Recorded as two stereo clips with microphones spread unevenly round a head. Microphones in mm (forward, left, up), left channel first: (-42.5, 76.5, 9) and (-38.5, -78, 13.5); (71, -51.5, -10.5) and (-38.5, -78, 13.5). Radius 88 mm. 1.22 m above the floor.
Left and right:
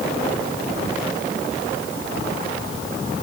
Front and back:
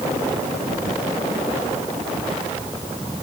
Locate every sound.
Only background noise.